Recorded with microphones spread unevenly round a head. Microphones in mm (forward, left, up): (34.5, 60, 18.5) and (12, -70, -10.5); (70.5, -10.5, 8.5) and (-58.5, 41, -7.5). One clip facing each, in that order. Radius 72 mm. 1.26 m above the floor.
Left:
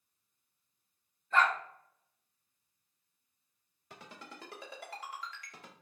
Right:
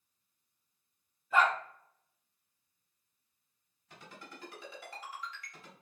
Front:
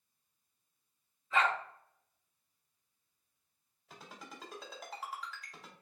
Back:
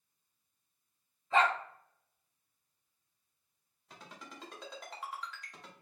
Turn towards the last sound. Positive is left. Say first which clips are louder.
# left 1 dB, even
turn(degrees=65)